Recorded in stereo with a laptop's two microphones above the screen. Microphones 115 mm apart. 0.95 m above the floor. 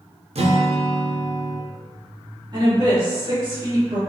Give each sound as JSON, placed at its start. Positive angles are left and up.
{"t": 0.3, "sound": "a guitar", "side_deg": -65, "distance_m": 0.5}
{"t": 2.5, "sound": "a woman speaking", "side_deg": -40, "distance_m": 1.8}